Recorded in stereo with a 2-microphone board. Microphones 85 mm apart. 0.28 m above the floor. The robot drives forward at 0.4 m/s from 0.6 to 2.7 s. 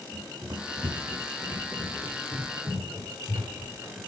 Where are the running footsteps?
45° right (ahead or behind), 1.0 m.